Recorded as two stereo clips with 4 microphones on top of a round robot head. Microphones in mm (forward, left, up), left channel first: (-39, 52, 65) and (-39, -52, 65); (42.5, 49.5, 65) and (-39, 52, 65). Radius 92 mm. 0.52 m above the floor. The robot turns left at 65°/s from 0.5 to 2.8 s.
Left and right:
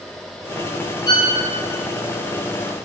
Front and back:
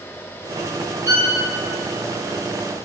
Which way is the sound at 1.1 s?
135° left.